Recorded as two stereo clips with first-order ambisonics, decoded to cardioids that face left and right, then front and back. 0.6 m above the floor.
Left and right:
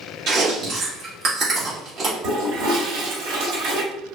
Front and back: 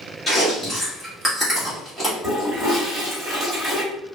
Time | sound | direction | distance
0.3 | chewing | 90° right | 1.4 m
2.2 | a toilet flushing | 105° right | 1.9 m